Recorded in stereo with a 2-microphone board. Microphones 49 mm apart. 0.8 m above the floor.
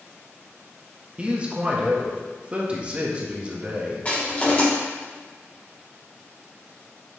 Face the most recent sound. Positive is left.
turn(degrees=30)  # may be behind; listen again after turning